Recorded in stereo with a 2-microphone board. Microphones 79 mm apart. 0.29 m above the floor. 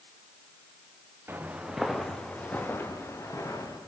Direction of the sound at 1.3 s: 25° right (ahead or behind).